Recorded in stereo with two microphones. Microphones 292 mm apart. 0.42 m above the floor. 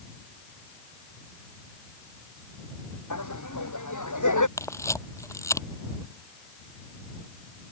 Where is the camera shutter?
10° left (ahead or behind).